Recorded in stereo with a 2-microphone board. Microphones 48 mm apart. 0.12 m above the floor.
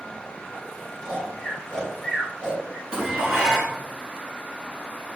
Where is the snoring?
10° left (ahead or behind), 1.5 m.